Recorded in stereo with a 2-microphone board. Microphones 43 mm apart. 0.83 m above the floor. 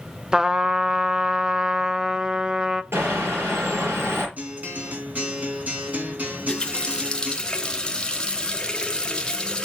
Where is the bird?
85° right, 5.5 m.